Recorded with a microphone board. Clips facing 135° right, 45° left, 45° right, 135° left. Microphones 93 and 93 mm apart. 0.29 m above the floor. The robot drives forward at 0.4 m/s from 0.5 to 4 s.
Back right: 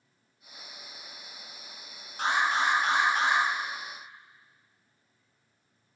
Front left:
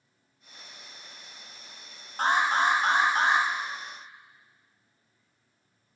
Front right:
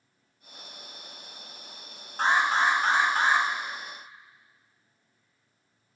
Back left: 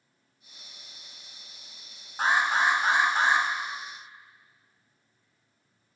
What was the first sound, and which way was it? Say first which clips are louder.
An alarm: front left 3 dB, front right 1 dB; 55° left.